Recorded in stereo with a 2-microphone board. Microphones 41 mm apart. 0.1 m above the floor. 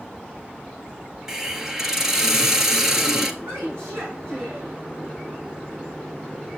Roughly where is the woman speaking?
Right.